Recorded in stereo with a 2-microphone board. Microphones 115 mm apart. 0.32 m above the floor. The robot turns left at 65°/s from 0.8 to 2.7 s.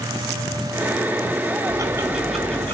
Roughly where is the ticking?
Behind right.